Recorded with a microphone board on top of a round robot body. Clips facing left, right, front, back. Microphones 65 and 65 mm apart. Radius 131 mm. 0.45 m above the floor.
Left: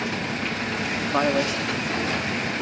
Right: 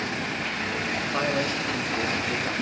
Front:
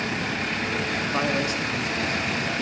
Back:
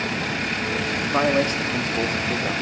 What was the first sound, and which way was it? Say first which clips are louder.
A man speaking: left 5 dB, back 7 dB; 110° left.